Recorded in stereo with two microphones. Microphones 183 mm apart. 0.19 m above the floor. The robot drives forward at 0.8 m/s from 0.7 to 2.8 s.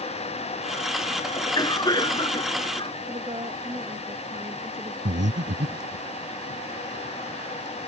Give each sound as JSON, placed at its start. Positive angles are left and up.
{"t": 1.4, "sound": "a cough", "side_deg": 20}
{"t": 3.1, "sound": "a woman speaking", "side_deg": -30}
{"t": 5.0, "sound": "breathing", "side_deg": -80}